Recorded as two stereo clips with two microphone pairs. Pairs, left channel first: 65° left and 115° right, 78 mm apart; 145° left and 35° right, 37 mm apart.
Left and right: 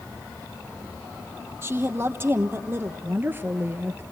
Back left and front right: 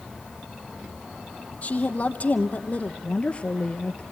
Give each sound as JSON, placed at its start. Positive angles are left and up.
{"t": 1.6, "sound": "a woman speaking", "azimuth_deg": -170, "distance_m": 2.5}
{"t": 3.0, "sound": "a woman speaking", "azimuth_deg": -170, "distance_m": 1.7}